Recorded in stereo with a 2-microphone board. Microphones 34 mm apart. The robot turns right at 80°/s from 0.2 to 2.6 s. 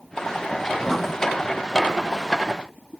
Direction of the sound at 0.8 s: 5° left (ahead or behind).